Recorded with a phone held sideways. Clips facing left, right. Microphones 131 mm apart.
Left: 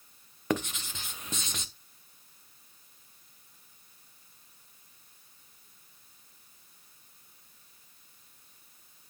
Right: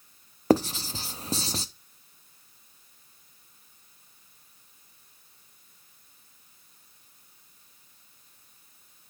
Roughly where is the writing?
Right.